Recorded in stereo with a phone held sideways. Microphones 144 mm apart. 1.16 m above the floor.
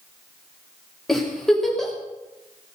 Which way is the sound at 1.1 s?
Centre (ahead or behind).